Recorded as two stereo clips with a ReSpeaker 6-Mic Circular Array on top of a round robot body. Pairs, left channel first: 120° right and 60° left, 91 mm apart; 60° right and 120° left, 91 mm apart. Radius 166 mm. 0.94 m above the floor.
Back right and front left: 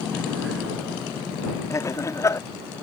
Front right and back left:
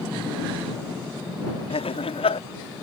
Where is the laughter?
60° right.